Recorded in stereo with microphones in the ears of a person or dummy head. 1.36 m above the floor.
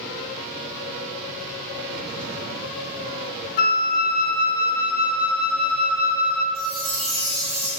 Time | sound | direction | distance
3.6 | a flute | 45° left (ahead or behind) | 0.6 m
6.5 | a chime | 25° right (ahead or behind) | 2 m